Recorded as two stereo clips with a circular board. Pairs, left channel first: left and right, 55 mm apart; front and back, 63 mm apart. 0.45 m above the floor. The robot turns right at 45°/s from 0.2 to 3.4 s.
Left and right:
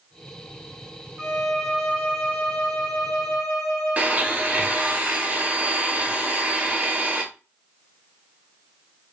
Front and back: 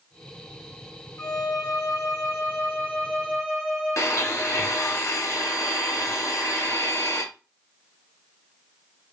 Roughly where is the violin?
Ahead.